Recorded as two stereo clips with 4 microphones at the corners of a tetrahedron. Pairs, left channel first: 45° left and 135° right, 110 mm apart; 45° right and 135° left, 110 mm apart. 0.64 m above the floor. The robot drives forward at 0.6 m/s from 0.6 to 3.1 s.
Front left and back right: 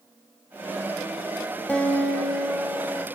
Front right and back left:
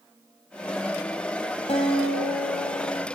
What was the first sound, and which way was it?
A guitar, 30° right.